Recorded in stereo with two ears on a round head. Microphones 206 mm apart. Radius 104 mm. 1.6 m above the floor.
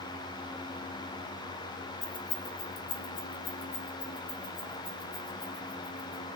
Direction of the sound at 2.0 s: 10° left (ahead or behind).